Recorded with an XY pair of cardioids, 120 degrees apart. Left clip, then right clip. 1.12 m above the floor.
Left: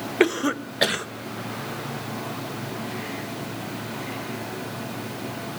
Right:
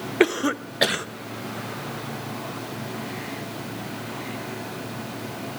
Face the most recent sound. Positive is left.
turn(degrees=-10)